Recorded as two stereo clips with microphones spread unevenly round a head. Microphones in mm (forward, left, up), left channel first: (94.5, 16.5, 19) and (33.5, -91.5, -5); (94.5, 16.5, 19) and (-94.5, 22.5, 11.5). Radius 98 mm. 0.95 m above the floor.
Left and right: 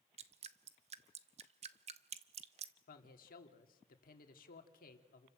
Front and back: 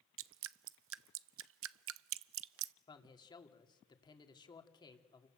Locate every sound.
0.2 s dripping: 165° right, 0.5 m
2.9 s a man speaking: 65° left, 2.5 m